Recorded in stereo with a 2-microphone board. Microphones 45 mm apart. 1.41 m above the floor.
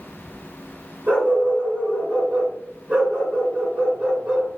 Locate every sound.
1.1 s a dog barking: 35° right (ahead or behind), 2.5 m